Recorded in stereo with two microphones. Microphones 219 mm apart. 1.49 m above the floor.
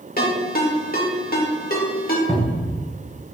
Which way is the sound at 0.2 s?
40° left (ahead or behind).